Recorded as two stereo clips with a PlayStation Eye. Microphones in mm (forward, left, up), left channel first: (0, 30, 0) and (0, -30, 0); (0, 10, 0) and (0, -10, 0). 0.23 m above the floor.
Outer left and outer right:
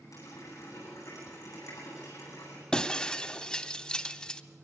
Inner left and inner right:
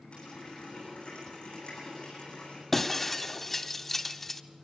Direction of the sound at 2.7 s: 15° left (ahead or behind).